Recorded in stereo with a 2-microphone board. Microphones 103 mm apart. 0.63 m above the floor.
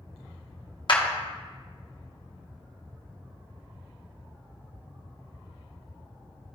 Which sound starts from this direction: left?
A clap, at 0.9 s.